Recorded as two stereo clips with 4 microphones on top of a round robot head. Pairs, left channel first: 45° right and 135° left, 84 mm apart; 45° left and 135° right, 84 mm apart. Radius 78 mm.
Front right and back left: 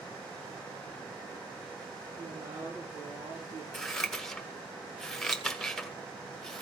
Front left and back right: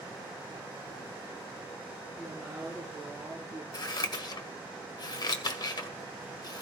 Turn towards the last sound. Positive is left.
turn(degrees=40)